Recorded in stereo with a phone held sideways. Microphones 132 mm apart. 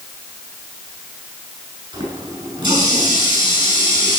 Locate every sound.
1.9 s a running tap: 35° right (ahead or behind), 6.5 m